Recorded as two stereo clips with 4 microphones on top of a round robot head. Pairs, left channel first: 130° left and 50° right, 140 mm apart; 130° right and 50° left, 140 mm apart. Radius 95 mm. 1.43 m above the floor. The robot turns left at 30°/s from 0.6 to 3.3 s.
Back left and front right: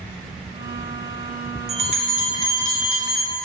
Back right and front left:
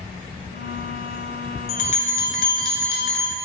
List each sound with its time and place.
1.7 s a bell: 90° right, 0.7 m; by 3.3 s 135° right, 0.7 m